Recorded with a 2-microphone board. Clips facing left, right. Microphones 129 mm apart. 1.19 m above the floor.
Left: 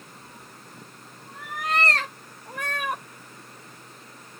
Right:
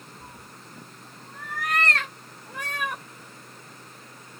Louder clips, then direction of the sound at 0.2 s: Right 1 dB; 50° right (ahead or behind).